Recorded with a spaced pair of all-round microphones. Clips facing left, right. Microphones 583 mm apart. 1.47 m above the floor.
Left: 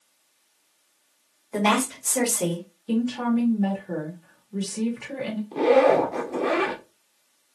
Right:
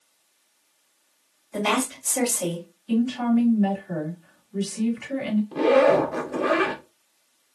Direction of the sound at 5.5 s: 35° right (ahead or behind).